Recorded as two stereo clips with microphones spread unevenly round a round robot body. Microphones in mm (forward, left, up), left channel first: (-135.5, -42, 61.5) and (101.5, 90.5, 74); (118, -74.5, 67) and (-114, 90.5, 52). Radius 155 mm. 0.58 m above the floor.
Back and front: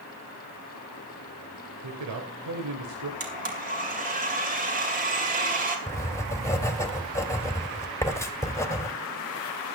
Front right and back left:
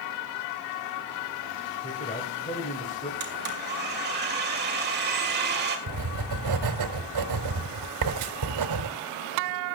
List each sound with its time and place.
1.8 s a man speaking: 30° left, 3 m
3.2 s a blender: 90° left, 4 m
5.9 s writing: 130° left, 2 m